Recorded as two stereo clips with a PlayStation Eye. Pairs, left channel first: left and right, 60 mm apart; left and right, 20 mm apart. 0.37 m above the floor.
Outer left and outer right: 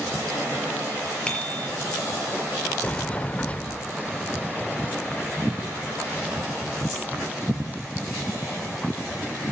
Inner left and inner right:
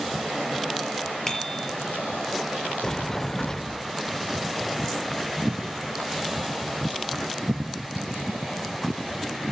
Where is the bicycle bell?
15° left (ahead or behind), 6.5 m.